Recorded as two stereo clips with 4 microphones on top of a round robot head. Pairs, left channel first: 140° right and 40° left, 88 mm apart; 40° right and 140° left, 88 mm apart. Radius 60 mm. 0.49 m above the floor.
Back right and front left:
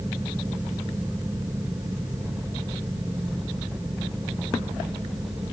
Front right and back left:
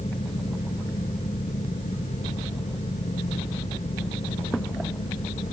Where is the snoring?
I don't hear snoring.